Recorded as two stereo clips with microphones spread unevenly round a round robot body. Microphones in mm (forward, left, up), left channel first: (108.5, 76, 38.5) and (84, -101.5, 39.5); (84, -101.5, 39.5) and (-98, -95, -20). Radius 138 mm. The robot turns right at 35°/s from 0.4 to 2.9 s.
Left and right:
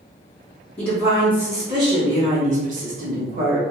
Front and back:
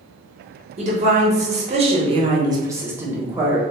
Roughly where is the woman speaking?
Behind.